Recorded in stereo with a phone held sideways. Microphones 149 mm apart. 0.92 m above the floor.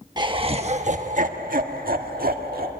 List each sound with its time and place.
0.2 s laughter: 30° right (ahead or behind), 0.9 m; by 2.7 s 85° right, 1.8 m